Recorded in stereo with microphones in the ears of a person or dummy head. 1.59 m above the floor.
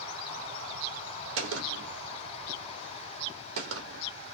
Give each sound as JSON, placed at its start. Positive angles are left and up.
{"t": 1.4, "sound": "a gunshot", "side_deg": -80, "distance_m": 1.0}